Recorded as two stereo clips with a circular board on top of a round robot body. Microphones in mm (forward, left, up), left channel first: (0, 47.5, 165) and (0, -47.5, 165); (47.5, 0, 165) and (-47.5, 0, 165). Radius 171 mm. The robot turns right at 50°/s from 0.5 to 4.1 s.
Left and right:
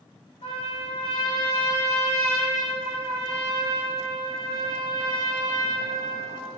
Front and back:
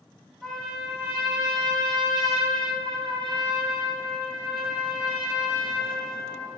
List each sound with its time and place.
0.4 s a trumpet: 85° left, 2.5 m; by 6.6 s 95° right, 2.5 m